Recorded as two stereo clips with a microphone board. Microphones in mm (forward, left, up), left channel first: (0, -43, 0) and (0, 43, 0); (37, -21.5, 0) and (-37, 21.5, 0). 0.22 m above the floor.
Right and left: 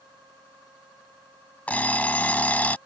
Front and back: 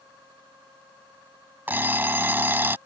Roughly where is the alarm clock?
Behind right.